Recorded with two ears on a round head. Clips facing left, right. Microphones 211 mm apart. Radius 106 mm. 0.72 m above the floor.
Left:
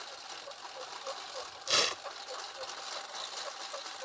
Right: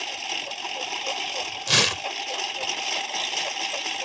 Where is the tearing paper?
70° right (ahead or behind).